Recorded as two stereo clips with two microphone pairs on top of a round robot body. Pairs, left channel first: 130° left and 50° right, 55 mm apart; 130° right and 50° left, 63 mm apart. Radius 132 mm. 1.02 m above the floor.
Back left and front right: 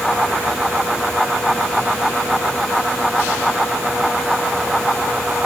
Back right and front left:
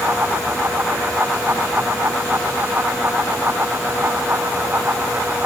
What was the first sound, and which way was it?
Only background noise.